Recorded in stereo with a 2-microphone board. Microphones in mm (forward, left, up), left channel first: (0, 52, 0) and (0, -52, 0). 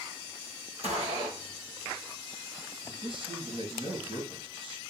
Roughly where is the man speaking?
Right.